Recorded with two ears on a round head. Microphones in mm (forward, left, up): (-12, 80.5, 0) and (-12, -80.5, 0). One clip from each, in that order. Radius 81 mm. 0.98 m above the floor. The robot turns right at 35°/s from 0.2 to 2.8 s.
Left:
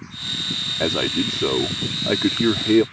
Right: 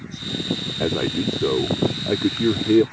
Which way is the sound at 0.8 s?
65° left.